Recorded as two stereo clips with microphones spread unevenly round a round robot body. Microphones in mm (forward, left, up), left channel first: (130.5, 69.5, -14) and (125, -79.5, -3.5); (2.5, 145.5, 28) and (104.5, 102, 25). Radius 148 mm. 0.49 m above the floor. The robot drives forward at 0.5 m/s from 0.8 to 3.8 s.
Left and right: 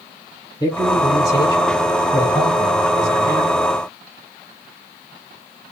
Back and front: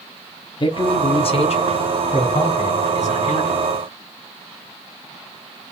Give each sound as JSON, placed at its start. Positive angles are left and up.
{"t": 0.6, "sound": "a man speaking", "azimuth_deg": 140, "distance_m": 0.9}